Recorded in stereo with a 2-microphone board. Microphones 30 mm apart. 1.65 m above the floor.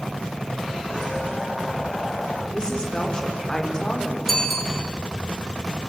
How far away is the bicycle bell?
About 4 m.